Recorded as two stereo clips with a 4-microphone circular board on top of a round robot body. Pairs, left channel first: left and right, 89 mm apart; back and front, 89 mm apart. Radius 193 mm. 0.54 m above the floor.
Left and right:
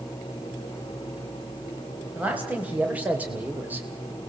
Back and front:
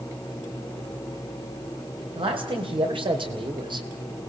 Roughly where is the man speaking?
Ahead.